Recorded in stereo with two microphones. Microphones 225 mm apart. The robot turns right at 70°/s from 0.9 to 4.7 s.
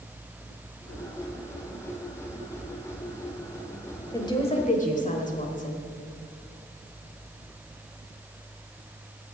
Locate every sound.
4.1 s a woman speaking: 20° left, 1.3 m; by 5.8 s 60° left, 1.3 m